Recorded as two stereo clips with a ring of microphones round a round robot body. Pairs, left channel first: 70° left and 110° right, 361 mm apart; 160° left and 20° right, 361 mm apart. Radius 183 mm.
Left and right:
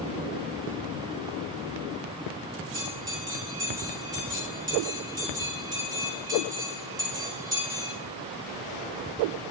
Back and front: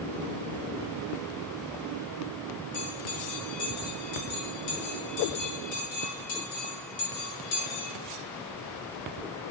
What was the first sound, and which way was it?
A bell, 165° left.